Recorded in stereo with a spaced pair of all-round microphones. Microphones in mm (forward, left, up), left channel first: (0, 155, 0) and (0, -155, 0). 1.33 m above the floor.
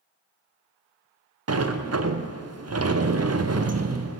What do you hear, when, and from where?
1.5 s a sliding door: 55° right (ahead or behind), 0.5 m